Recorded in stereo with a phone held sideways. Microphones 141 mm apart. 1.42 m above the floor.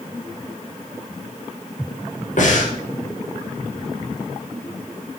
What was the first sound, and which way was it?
Breathing, 60° left (ahead or behind).